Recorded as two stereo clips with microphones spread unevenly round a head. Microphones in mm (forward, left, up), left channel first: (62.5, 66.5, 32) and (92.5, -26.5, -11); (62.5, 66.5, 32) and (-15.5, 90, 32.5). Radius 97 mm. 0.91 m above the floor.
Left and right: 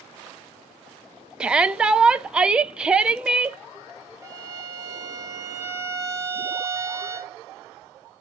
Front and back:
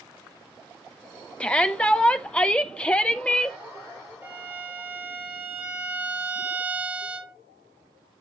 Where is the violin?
125° right, 1.1 m.